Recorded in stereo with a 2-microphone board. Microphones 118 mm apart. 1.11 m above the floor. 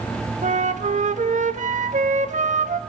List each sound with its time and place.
0.4 s a flute: 80° right, 1.3 m